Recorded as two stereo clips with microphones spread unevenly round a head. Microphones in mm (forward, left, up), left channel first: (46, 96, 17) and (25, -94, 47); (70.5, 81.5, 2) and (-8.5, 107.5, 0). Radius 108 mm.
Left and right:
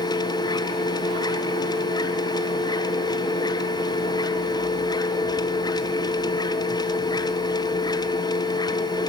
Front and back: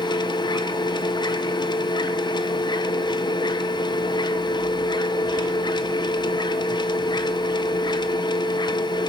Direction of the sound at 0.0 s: 10° left.